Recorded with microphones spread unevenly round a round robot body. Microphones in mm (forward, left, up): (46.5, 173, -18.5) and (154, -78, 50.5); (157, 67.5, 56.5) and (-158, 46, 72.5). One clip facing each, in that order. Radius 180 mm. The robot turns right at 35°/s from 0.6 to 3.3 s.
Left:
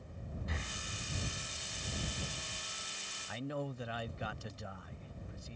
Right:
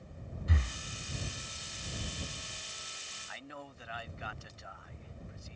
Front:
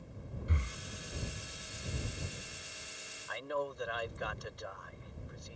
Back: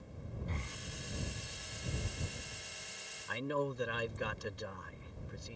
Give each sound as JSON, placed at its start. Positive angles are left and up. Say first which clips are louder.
{"t": 0.5, "sound": "breathing", "louder": "right 5 dB, front 2 dB", "azimuth_deg": -75}
{"t": 3.3, "sound": "a man speaking", "louder": "left 9 dB, back 2 dB", "azimuth_deg": 130}